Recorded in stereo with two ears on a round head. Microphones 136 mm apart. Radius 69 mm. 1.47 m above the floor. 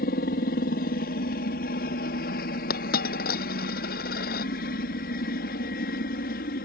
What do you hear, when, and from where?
0.0 s a helicopter: 65° left (ahead or behind)
2.7 s a dropped coin: 70° left (ahead or behind)